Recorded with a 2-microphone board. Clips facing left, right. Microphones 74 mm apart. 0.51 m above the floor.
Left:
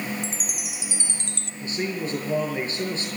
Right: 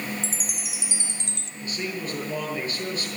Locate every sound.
0.2 s a chime: 60° left (ahead or behind), 0.6 m
1.6 s a man speaking: 30° left (ahead or behind), 8.5 m